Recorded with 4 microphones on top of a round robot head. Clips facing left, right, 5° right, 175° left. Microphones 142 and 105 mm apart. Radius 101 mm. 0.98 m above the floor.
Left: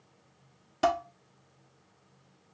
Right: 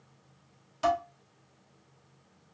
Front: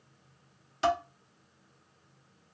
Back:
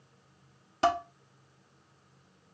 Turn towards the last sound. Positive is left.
turn(degrees=125)